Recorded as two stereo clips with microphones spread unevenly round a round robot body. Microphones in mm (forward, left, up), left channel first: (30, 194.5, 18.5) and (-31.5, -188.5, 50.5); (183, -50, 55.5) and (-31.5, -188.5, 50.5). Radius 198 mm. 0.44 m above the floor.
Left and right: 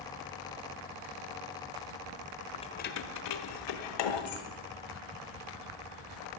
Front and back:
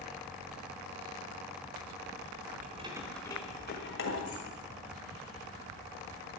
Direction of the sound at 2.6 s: 155° left.